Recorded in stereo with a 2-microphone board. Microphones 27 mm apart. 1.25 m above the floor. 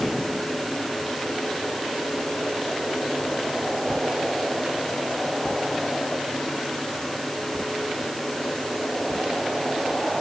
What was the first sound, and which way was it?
Only background noise.